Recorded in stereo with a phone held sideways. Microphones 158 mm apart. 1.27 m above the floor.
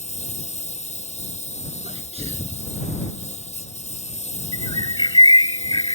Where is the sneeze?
40° right (ahead or behind).